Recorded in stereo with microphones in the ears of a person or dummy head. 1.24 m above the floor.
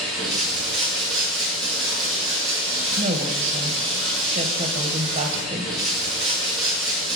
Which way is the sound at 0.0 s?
Centre (ahead or behind).